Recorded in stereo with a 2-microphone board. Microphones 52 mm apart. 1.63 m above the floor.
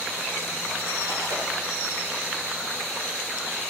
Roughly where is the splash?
Right.